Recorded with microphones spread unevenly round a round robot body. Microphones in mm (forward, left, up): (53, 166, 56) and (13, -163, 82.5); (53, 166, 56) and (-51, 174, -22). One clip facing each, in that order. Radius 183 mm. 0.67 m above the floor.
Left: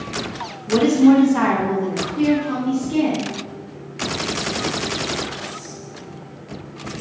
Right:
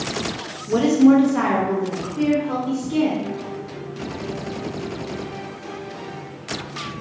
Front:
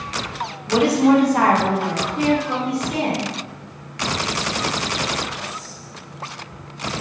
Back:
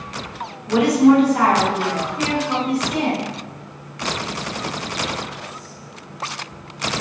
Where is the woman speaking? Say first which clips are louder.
Left 1 dB, back 2 dB; 145° left, 0.8 m; by 3.3 s 5° left, 1.7 m.